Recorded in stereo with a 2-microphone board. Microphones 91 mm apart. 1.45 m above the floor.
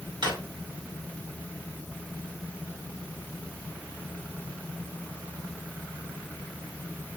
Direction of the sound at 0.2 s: 60° right (ahead or behind).